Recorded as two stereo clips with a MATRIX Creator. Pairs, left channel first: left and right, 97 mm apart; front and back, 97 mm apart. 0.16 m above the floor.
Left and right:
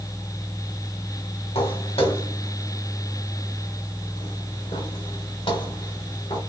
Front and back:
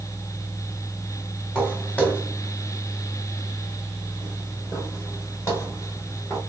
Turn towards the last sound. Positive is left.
turn(degrees=55)